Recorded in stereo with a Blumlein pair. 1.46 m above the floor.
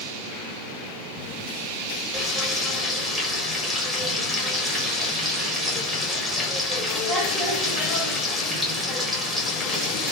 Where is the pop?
I don't hear a pop.